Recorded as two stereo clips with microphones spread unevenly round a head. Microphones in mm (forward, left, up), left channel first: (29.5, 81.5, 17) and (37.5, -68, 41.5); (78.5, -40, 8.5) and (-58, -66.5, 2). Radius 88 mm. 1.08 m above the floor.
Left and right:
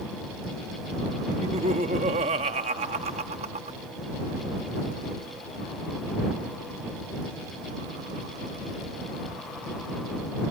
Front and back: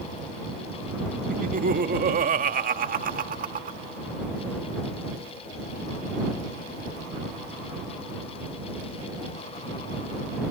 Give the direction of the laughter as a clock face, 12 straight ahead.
5 o'clock.